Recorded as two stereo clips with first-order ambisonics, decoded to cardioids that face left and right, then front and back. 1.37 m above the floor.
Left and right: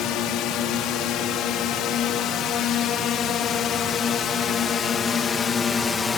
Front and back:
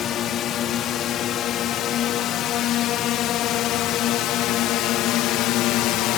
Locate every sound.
0.0 s a drone: 55° left; by 6.2 s 25° left